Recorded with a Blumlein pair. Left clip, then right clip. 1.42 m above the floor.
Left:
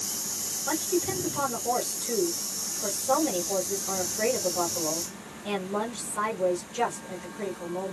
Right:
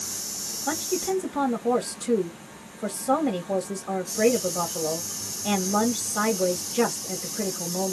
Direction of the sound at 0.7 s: 35° right.